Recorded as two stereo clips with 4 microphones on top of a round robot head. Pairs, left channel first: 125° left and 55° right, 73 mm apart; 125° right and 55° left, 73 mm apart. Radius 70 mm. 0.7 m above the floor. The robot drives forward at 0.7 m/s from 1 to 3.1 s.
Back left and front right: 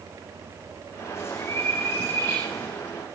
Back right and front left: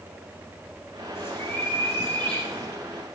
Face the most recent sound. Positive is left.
turn(degrees=180)